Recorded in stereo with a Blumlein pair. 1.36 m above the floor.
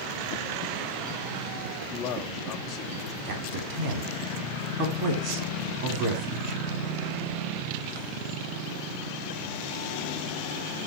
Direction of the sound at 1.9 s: 35° left.